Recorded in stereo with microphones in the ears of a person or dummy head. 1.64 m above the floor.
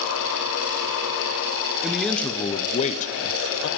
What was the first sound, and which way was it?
A man speaking, 5° right (ahead or behind).